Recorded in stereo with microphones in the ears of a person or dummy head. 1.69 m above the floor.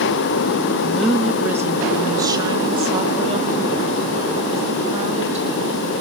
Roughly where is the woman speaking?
Centre.